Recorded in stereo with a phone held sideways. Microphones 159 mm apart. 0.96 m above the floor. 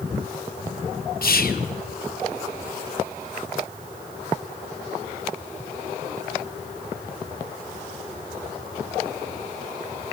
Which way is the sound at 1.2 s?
70° left (ahead or behind).